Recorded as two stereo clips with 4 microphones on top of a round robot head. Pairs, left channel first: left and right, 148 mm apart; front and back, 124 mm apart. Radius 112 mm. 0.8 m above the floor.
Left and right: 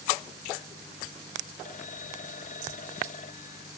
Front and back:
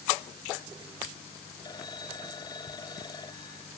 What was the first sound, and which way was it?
A phone ringing, 60° left.